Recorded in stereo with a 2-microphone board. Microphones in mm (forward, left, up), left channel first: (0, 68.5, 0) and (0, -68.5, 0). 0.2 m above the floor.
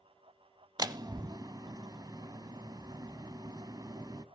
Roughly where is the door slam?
Right.